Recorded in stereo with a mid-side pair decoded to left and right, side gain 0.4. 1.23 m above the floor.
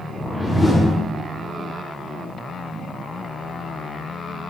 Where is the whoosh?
20° left, 0.7 m.